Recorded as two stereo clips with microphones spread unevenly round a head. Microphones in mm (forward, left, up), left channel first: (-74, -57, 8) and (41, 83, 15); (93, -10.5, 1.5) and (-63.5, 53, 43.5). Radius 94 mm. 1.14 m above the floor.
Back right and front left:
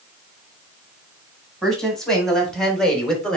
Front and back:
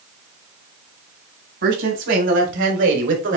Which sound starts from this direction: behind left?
A woman speaking, at 1.6 s.